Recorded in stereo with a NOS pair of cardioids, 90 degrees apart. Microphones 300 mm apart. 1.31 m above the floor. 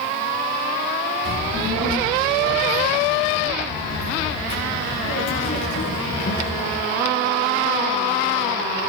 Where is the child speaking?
55° left, 5 m; by 6.8 s 35° left, 7 m.